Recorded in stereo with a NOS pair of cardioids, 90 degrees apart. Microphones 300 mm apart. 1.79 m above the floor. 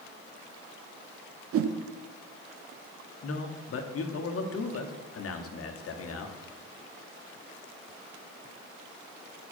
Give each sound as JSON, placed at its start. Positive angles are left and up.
{"t": 1.5, "sound": "a whoosh", "azimuth_deg": -55, "distance_m": 0.6}
{"t": 3.2, "sound": "a man speaking", "azimuth_deg": 50, "distance_m": 1.2}